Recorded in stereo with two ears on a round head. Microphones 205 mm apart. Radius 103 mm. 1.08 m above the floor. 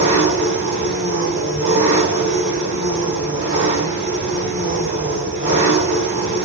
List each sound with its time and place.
0.0 s an engine running: 30° right (ahead or behind), 4 m